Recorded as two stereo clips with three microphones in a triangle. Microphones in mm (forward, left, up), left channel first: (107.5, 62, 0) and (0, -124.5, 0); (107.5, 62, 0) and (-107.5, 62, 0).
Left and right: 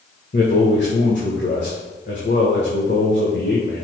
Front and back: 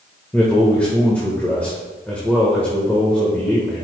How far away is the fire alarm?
I don't hear a fire alarm.